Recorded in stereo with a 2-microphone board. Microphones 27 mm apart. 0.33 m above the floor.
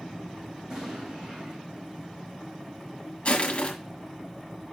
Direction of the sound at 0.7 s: 30° right (ahead or behind).